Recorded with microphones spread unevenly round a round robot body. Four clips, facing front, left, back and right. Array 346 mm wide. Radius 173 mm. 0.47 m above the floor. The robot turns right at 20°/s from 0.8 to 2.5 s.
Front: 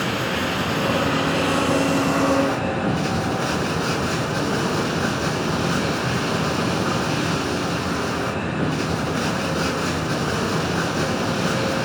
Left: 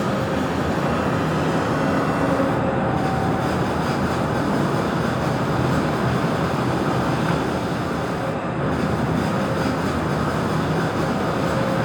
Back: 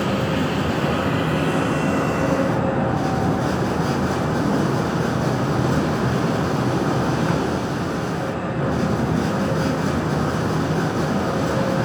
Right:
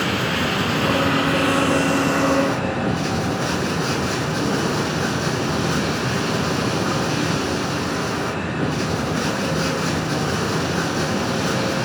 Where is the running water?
65° right, 4.5 m; by 11.9 s 30° right, 4.5 m.